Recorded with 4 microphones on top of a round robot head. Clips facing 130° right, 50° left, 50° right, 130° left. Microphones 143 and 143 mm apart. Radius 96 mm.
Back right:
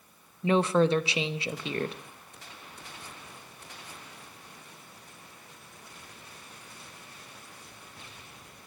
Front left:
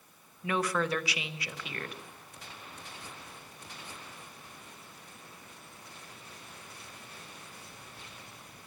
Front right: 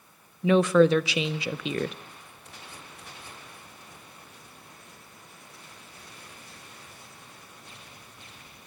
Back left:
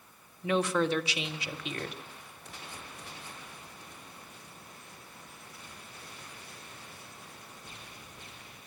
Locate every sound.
0.4 s a woman speaking: 65° right, 0.6 m